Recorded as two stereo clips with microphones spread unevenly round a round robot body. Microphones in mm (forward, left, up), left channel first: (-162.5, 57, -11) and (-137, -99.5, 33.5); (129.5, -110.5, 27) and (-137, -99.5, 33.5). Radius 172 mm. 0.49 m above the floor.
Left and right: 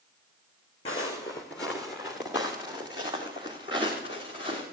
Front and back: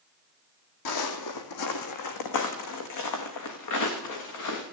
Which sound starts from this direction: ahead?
Footsteps, at 0.8 s.